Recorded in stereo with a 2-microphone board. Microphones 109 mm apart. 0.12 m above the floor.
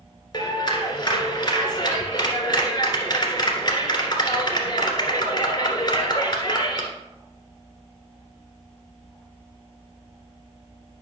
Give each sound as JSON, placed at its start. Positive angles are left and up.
{"t": 0.3, "sound": "a clap", "side_deg": 40, "distance_m": 1.7}